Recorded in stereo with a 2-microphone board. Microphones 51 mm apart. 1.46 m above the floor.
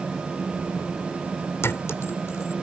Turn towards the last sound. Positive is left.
turn(degrees=55)  # may be behind; listen again after turning